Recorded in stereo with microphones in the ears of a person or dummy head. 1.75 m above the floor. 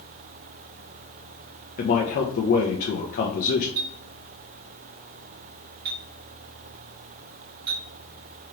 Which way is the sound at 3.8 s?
50° right (ahead or behind).